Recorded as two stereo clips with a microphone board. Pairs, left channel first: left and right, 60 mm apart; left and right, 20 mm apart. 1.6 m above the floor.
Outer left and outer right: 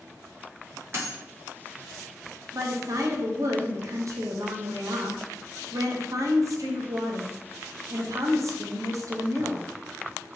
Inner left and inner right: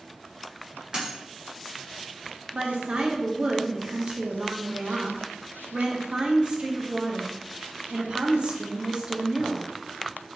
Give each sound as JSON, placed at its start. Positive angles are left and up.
{"t": 0.9, "sound": "a dropped coin", "side_deg": -45, "distance_m": 1.6}
{"t": 2.5, "sound": "a woman speaking", "side_deg": -55, "distance_m": 0.8}